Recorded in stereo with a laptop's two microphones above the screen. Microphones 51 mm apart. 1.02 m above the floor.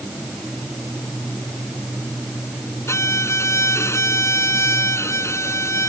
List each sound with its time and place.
2.9 s a violin: 70° left (ahead or behind)